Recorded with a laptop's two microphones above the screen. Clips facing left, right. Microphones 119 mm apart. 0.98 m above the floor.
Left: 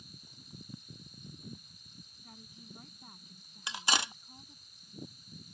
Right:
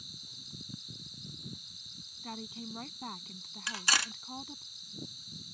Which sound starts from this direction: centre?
Cutlery clinking, at 3.7 s.